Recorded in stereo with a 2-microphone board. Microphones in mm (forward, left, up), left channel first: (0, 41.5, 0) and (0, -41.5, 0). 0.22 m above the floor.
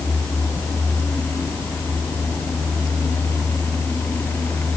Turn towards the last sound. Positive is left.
No sound to turn to.